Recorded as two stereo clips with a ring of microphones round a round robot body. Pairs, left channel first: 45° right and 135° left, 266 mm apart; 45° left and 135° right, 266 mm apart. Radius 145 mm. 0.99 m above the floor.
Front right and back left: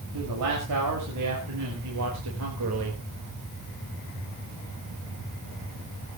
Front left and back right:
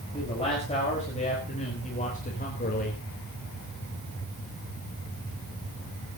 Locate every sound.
0.1 s a man speaking: 115° left, 6 m; by 3.0 s 100° left, 4 m